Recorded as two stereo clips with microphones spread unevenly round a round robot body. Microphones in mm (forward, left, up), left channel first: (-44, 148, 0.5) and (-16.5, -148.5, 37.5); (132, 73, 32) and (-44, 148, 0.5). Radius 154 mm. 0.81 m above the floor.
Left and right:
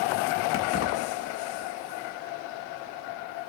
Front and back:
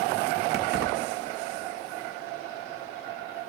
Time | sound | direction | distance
0.5 | keys jangling | 135° left | 1.0 m